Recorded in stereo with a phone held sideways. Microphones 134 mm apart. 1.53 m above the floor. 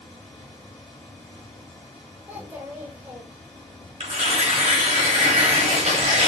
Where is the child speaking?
15° right (ahead or behind), 1.1 m.